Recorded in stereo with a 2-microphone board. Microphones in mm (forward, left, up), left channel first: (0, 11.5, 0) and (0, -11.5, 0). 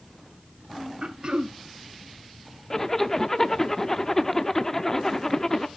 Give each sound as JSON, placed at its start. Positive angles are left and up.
{"t": 1.0, "sound": "throat clearing", "side_deg": -45, "distance_m": 0.7}
{"t": 2.7, "sound": "a zipper", "side_deg": 20, "distance_m": 0.5}